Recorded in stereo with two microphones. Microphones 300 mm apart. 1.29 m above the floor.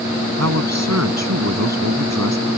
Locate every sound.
0.4 s a man speaking: 60° right (ahead or behind)